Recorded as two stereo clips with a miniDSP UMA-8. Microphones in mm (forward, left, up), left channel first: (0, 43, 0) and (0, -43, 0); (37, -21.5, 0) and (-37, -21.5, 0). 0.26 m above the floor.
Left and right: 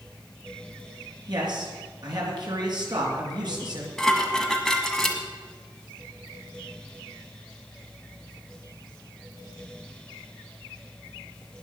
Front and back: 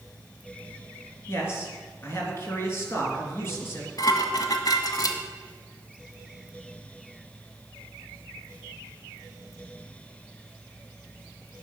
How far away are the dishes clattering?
About 1.4 m.